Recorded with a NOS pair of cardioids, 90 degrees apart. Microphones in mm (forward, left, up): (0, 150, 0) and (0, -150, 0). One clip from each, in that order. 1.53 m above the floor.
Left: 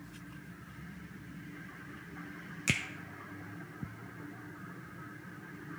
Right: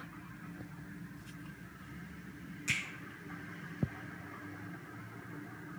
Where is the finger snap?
65° left, 2.0 m.